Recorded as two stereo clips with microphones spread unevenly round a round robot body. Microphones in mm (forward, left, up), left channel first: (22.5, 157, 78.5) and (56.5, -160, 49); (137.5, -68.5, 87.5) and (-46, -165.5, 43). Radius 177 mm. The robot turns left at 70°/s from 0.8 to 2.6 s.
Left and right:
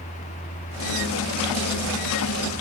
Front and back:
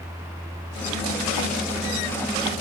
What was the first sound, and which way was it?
Only background noise.